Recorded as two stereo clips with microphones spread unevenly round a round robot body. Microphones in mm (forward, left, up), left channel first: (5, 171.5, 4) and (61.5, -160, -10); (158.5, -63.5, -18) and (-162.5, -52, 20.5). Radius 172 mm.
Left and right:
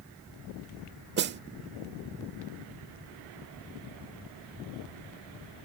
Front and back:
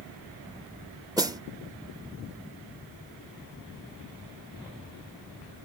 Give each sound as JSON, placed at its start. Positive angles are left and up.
{"t": 1.2, "sound": "a snare drum", "azimuth_deg": -100}